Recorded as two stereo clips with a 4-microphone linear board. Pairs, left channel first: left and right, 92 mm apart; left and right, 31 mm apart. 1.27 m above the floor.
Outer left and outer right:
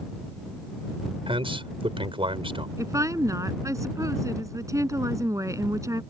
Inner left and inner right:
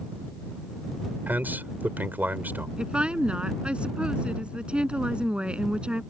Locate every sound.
1.3 s a man speaking: 80° right
2.8 s a woman speaking: 35° right (ahead or behind)